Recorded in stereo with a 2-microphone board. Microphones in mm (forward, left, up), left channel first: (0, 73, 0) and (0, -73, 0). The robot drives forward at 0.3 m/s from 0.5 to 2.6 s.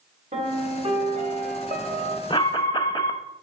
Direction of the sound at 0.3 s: 50° right (ahead or behind).